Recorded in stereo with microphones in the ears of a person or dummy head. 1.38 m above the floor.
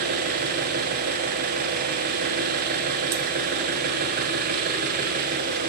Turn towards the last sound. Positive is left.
turn(degrees=-45)  # may be behind; listen again after turning